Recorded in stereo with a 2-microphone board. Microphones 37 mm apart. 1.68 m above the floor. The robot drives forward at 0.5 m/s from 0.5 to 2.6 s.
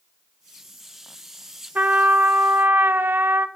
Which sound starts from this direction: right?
A trumpet, at 1.8 s.